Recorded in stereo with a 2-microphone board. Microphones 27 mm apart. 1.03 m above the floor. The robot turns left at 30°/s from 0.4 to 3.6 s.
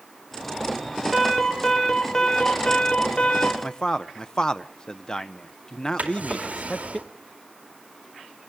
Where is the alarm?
170° right, 4 m; by 3.5 s 120° left, 4 m.